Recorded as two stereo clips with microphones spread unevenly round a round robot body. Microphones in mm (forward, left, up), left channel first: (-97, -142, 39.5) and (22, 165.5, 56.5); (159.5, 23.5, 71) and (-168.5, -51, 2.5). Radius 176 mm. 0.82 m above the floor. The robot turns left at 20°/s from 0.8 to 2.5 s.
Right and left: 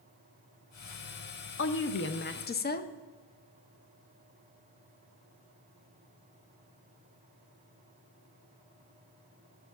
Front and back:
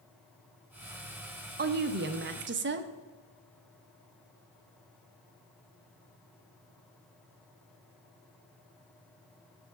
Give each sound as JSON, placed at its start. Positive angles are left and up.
{"t": 1.6, "sound": "a woman speaking", "azimuth_deg": -140, "distance_m": 0.8}